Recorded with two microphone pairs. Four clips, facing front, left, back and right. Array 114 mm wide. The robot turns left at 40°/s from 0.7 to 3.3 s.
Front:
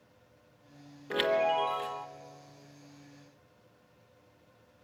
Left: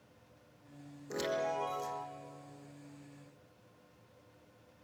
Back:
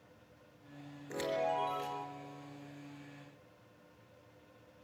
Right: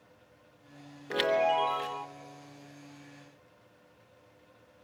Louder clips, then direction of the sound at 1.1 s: Right 8 dB, front 7 dB; 55° right.